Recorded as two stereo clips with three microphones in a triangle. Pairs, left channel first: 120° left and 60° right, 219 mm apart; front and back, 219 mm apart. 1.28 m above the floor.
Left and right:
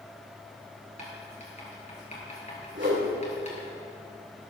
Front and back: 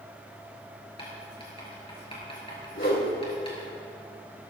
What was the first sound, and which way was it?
Writing, 65° left.